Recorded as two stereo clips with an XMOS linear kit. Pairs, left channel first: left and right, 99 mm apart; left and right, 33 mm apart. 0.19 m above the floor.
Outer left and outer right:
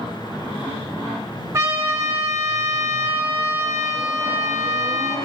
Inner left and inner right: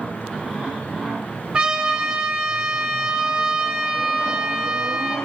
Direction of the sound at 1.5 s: 30° right (ahead or behind).